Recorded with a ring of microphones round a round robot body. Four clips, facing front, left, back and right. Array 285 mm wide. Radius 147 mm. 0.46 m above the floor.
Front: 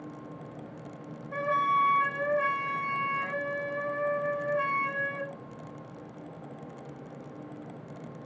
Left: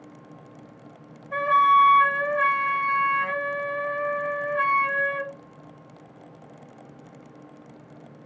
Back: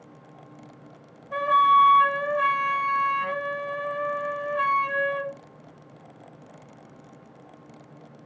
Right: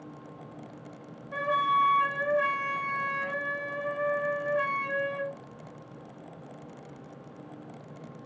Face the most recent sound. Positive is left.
turn(degrees=130)